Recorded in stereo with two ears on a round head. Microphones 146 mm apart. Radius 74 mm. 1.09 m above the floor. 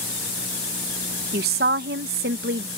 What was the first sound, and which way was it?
A woman speaking, 60° right (ahead or behind).